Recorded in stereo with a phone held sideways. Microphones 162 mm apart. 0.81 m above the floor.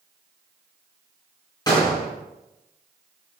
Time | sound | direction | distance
1.7 | a gunshot | 25° left (ahead or behind) | 3 m